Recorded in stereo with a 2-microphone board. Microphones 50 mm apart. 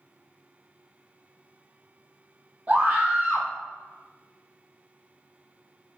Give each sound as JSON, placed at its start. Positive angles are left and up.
{"t": 2.7, "sound": "a scream", "side_deg": -30, "distance_m": 1.3}